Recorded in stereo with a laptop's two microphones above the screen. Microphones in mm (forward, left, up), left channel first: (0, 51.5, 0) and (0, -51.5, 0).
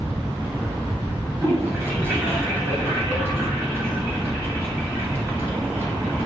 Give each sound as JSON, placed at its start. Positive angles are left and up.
{"t": 1.4, "sound": "a toilet flushing", "side_deg": -20, "distance_m": 2.5}